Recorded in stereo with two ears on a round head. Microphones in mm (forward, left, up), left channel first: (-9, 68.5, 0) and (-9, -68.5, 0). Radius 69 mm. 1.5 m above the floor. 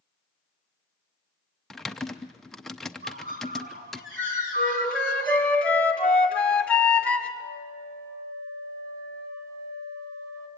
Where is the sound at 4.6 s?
10° left (ahead or behind), 1.9 m.